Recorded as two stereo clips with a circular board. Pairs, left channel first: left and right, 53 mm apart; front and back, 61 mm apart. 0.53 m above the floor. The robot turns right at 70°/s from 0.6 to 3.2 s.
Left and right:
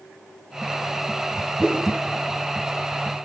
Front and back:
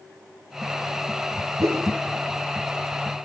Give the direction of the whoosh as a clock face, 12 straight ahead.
6 o'clock.